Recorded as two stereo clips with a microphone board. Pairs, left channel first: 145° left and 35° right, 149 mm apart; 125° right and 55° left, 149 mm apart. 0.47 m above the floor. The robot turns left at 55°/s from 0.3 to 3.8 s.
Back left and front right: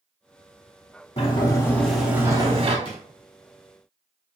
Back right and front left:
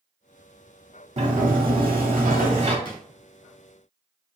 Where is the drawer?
170° right, 0.9 m; by 3.0 s straight behind, 0.9 m.